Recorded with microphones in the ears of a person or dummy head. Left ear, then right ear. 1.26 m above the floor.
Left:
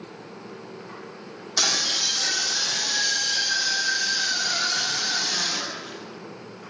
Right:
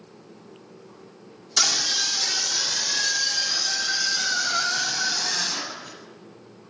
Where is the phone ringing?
I don't hear a phone ringing.